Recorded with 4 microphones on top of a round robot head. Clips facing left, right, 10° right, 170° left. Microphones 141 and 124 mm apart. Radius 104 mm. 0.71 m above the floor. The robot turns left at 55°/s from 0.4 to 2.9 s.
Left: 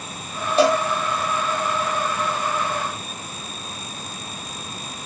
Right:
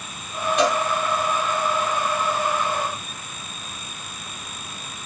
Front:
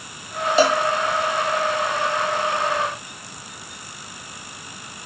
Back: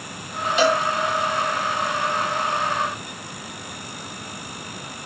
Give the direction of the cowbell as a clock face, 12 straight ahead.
11 o'clock.